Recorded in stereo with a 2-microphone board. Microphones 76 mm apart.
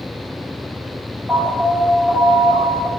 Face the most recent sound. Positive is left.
turn(degrees=-15)  # may be behind; listen again after turning